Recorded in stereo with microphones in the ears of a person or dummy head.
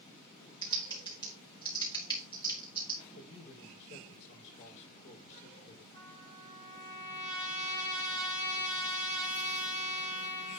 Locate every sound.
0.6 s typing on a keyboard: 25° left (ahead or behind), 1.7 m
3.1 s a man speaking: 45° left (ahead or behind), 5.5 m
5.9 s a trumpet: 25° left (ahead or behind), 2 m